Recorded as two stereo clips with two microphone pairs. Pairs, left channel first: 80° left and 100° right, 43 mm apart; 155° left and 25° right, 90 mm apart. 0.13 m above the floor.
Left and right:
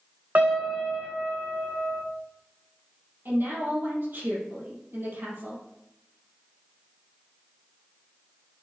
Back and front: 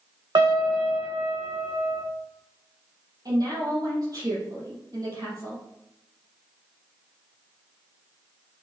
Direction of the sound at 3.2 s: 70° right.